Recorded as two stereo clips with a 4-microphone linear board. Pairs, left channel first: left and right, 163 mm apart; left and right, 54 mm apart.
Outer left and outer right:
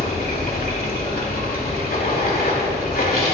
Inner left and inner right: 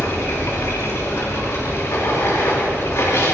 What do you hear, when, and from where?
0.0 s running water: 70° left (ahead or behind), 2.5 m